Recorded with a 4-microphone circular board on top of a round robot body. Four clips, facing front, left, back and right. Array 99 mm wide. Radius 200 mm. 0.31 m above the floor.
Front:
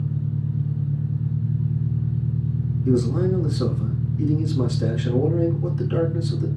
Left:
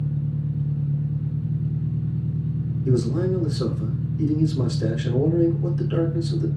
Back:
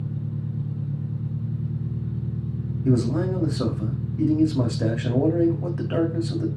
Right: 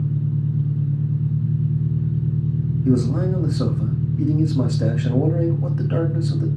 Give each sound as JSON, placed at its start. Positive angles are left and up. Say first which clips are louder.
{"t": 0.0, "sound": "an engine running", "louder": "right 3 dB, front 4 dB", "azimuth_deg": -90, "distance_m": 6.0}
{"t": 2.9, "sound": "a man speaking", "louder": "right 2 dB, front 1 dB", "azimuth_deg": -135, "distance_m": 3.0}